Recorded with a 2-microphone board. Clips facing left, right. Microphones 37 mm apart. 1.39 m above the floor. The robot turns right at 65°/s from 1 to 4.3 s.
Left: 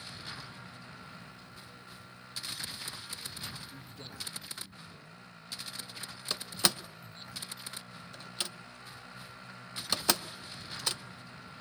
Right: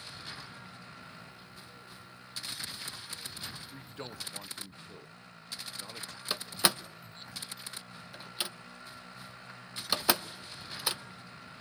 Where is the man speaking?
30° right (ahead or behind), 1.1 m; by 6.2 s 60° right (ahead or behind), 1.1 m.